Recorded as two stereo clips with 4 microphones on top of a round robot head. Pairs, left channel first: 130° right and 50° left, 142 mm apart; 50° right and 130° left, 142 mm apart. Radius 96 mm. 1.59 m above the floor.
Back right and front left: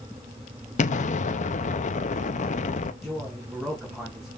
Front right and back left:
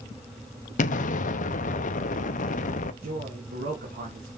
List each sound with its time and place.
0.8 s an explosion: 90° right, 0.8 m
3.0 s a man speaking: 140° left, 3 m